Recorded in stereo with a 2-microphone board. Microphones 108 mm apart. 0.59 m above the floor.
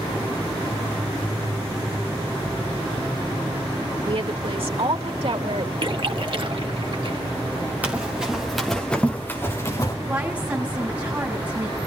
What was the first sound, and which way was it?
A woman speaking, 55° right (ahead or behind).